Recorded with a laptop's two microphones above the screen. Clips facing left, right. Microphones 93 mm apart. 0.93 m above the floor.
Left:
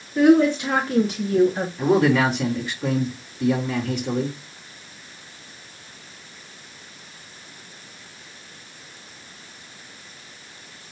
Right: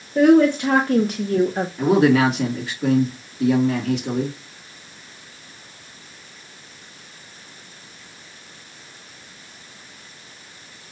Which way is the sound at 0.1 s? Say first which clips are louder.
Right 2 dB; 55° right (ahead or behind).